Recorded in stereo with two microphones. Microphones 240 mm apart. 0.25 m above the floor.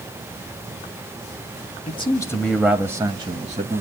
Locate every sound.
1.9 s a man speaking: 25° left (ahead or behind), 1.2 m; by 3.8 s 35° right (ahead or behind), 1.5 m